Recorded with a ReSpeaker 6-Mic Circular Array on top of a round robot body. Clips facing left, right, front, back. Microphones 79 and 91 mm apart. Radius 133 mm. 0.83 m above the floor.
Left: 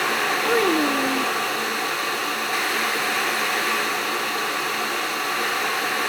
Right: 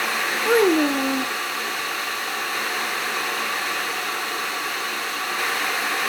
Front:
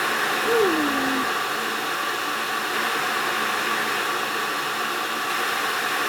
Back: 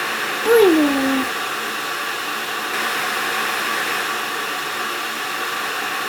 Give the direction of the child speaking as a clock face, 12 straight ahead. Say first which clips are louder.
Right 4 dB, back 9 dB; 5 o'clock.